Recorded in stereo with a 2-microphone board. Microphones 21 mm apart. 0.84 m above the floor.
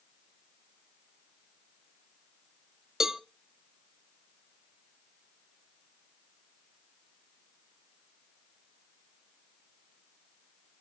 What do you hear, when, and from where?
3.0 s a cowbell: 20° right (ahead or behind), 0.7 m